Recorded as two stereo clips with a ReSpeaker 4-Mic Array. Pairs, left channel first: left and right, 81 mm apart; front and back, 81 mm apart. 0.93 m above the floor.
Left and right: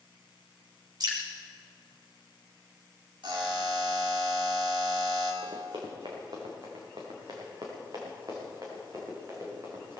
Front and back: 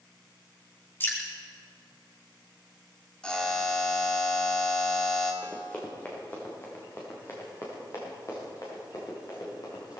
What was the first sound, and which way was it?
Dripping, 60° right.